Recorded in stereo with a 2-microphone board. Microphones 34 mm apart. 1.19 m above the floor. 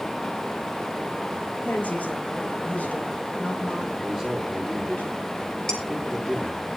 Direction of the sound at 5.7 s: 15° left (ahead or behind).